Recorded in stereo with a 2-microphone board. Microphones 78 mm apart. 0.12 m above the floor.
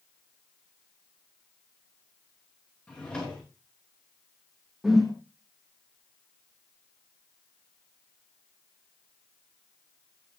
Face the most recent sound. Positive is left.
turn(degrees=5)  # may be behind; listen again after turning